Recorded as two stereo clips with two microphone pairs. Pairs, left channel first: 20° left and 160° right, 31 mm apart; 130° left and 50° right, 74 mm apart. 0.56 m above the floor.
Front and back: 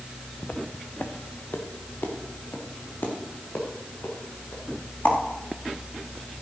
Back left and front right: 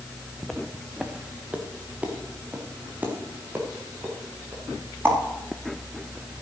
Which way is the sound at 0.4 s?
50° left.